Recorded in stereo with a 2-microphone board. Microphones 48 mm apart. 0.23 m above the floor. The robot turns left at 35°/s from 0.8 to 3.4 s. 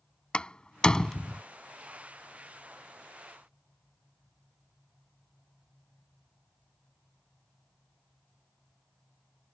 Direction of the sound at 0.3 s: 20° left (ahead or behind).